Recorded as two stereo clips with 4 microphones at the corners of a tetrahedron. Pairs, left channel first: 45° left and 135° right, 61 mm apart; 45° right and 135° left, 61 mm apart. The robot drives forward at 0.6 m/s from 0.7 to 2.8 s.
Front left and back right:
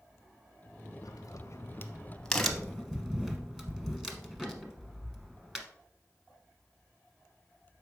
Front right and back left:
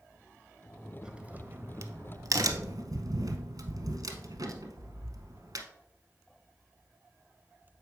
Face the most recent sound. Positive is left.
turn(degrees=145)